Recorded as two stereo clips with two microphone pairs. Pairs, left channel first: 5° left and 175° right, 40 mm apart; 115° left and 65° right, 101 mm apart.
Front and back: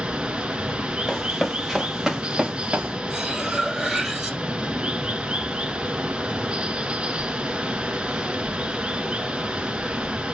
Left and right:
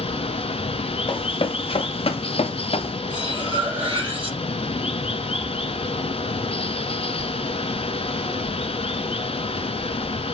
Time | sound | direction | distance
0.0 | running water | 115° left | 1.3 m
1.1 | running footsteps | 85° left | 2.5 m
3.1 | cutlery clinking | 100° right | 4 m